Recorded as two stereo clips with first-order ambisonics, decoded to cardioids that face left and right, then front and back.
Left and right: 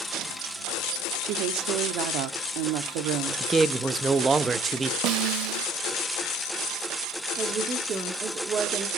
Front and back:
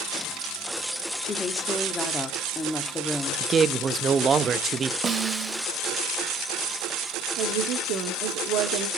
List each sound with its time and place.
1.2 s a woman speaking: 75° right, 1.2 m
3.4 s a man speaking: 145° right, 0.6 m
5.0 s a snare drum: 110° right, 0.6 m
7.4 s a woman speaking: 155° right, 1.2 m